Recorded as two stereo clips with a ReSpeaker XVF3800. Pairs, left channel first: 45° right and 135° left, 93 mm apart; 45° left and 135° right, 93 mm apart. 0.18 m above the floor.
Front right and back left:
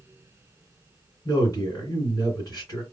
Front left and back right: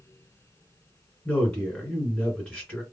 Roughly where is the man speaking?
Ahead right.